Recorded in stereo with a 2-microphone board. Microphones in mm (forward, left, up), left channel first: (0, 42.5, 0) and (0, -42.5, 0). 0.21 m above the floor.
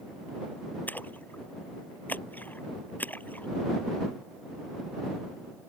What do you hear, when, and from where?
0.9 s a splash: 20° left (ahead or behind)